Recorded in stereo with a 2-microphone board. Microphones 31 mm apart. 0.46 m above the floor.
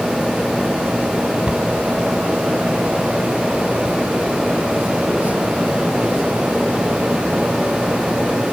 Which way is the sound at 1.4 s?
30° right (ahead or behind).